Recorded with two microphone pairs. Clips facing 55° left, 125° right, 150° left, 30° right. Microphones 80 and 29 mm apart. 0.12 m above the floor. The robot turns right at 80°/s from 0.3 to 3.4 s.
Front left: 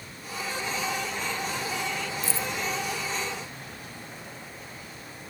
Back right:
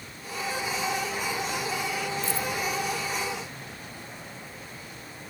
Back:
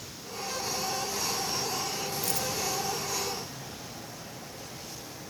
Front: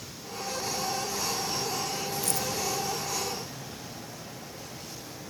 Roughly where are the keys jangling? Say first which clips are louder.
Back right 2 dB, even; behind right.